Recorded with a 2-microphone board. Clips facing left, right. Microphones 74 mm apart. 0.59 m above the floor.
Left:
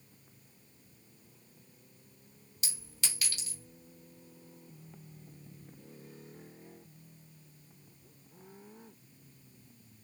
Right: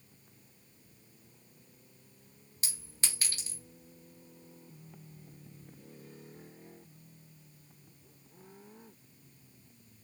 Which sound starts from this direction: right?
A clink, at 2.6 s.